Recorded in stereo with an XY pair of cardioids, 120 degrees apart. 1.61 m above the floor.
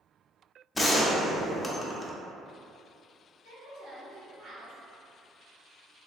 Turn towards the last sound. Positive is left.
turn(degrees=-65)